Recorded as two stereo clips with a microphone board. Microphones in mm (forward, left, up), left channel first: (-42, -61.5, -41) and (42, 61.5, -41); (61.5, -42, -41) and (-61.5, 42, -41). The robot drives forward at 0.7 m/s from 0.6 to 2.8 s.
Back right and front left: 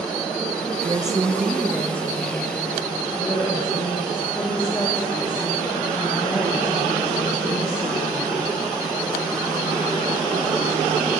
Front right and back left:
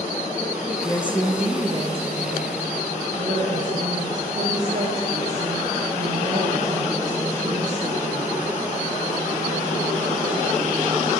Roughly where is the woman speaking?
Ahead.